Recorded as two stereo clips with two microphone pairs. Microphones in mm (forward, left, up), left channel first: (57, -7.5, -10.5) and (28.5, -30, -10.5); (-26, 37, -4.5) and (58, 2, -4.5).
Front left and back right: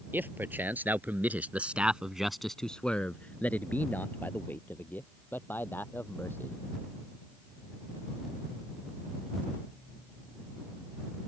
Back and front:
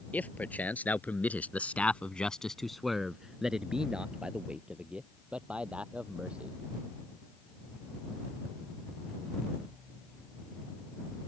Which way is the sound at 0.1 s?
130° right.